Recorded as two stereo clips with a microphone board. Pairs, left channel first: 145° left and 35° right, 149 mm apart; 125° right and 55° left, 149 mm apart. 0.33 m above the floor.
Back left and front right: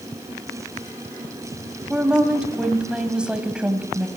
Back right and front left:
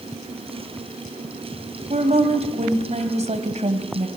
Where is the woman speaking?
45° left, 1.9 m.